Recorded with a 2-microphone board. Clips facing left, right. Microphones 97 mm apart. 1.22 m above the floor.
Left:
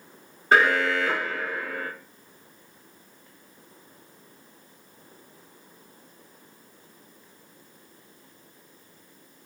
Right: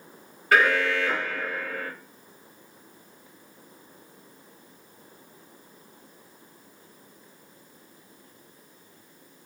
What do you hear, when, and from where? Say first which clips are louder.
0.5 s an alarm: left 1 dB; 25° left (ahead or behind), 0.7 m